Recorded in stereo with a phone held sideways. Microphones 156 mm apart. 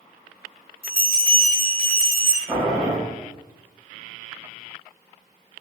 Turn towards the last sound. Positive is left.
turn(degrees=-20)  # may be behind; listen again after turning